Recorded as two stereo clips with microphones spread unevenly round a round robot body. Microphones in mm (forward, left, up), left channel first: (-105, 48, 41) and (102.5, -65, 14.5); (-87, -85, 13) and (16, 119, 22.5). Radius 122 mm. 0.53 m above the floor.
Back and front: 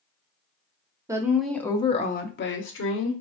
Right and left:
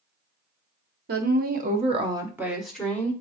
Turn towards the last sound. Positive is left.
turn(degrees=165)